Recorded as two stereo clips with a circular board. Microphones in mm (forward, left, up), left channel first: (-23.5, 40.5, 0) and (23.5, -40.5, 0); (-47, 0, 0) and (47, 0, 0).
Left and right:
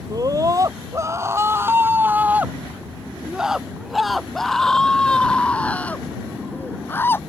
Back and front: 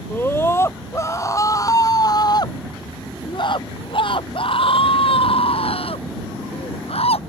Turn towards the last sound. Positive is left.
turn(degrees=-170)